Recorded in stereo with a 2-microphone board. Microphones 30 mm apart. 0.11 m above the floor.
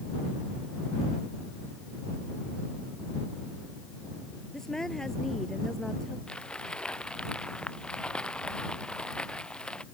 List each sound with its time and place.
4.5 s a woman speaking: 20° left (ahead or behind)
6.3 s crumpling: 30° left (ahead or behind)